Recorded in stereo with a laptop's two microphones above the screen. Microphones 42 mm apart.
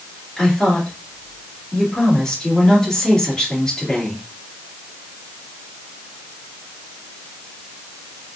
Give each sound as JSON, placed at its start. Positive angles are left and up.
{"t": 0.4, "sound": "a woman speaking", "side_deg": 15, "distance_m": 2.5}